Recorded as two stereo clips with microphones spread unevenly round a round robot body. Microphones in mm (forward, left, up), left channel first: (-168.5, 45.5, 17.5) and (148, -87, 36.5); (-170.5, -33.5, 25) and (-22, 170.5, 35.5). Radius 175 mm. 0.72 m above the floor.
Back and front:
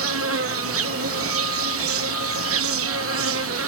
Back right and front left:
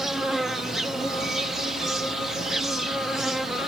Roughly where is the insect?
Ahead right.